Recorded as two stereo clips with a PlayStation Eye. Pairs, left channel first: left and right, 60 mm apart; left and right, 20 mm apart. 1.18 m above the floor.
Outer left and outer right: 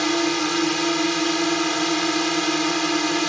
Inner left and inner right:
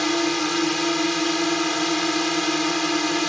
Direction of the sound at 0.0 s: Centre (ahead or behind).